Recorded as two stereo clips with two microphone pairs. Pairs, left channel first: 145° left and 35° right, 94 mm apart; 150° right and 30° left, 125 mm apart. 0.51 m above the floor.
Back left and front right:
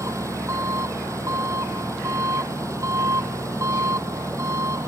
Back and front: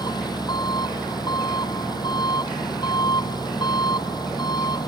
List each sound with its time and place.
0.0 s an engine running: 95° right